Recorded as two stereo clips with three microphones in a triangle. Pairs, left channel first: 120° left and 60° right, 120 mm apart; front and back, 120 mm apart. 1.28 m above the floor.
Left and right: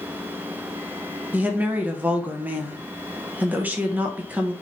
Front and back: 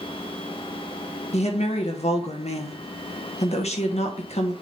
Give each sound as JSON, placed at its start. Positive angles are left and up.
{"t": 1.3, "sound": "a woman speaking", "azimuth_deg": 15, "distance_m": 1.4}